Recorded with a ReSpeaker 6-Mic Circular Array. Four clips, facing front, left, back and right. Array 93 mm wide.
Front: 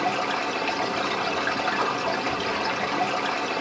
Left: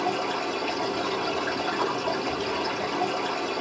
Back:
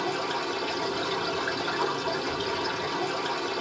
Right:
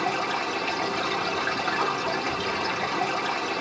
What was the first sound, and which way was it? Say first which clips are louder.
Running water: even, front 4 dB; 25° right.